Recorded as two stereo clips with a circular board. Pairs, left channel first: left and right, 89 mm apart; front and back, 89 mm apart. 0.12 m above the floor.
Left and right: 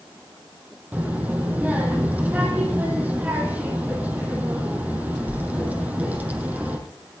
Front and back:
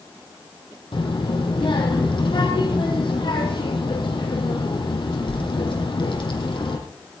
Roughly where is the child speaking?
Ahead.